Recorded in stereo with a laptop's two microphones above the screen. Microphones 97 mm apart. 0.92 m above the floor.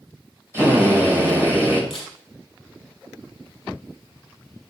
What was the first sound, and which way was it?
A drill, 25° right (ahead or behind).